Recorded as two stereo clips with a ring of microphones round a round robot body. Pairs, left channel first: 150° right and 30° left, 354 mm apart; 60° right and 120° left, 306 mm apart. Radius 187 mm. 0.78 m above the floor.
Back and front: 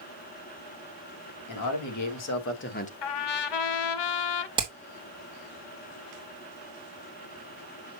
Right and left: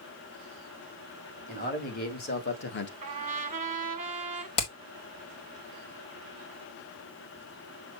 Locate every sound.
1.5 s a man speaking: 125° right, 2.5 m; by 2.9 s 90° right, 1.2 m
3.0 s a trumpet: 170° right, 0.8 m
4.6 s hammering: 45° right, 2.5 m